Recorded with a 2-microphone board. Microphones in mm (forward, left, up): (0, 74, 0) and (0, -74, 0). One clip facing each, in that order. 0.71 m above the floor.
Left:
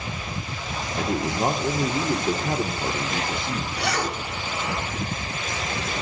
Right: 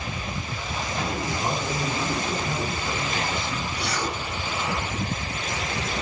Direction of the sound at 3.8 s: 70° left (ahead or behind).